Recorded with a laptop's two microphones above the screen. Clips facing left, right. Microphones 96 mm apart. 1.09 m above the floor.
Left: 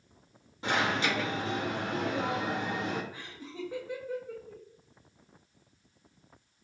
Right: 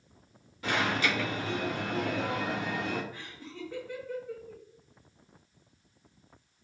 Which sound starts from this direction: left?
An alarm, at 0.6 s.